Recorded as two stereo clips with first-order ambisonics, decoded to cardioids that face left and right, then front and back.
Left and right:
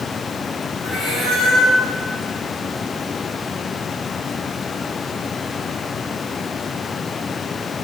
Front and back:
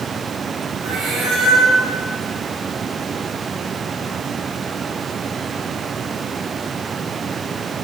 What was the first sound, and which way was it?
A cat meowing, 140° left.